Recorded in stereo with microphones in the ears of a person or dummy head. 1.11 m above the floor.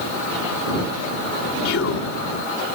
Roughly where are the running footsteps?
No running footsteps in this recording.